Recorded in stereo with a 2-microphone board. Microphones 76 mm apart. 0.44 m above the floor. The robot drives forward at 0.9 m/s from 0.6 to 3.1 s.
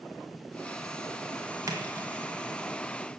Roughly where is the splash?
Right.